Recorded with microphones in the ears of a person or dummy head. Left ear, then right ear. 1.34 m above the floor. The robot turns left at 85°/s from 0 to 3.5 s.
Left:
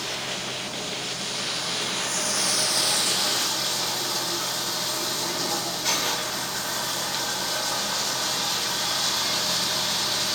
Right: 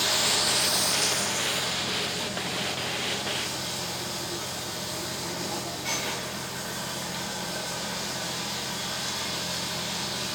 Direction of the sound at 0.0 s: 35° right.